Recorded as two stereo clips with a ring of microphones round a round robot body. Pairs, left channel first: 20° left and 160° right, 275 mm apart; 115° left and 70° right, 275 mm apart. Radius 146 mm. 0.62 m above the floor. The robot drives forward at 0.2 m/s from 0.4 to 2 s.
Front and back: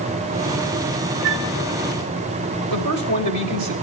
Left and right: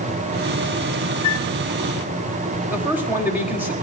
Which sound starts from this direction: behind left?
A flute, at 1.2 s.